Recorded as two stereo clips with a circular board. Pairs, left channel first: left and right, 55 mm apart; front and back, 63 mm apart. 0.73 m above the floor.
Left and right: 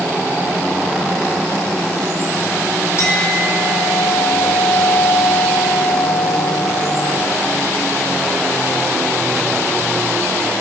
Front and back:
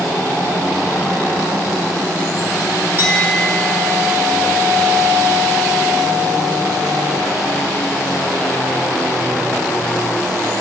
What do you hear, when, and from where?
3.0 s a clink: 125° left, 2.5 m